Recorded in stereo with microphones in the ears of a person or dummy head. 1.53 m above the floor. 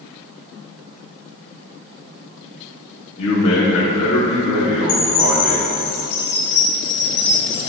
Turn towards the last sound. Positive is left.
turn(degrees=55)  # may be behind; listen again after turning